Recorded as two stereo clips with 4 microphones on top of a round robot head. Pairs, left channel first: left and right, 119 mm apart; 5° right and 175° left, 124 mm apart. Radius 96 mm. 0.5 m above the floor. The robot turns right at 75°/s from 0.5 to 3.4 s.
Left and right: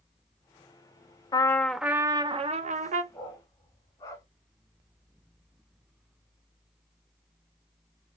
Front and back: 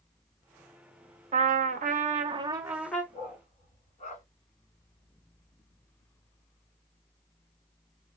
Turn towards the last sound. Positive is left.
turn(degrees=25)